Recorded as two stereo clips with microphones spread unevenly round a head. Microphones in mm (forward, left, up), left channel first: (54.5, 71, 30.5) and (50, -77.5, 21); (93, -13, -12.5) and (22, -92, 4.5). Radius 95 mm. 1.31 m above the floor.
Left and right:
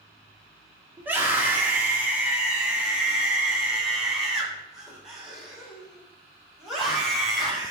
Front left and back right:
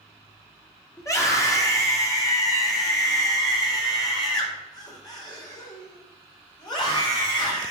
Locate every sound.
1.0 s a scream: 15° right, 3.5 m; by 7.7 s straight ahead, 6.5 m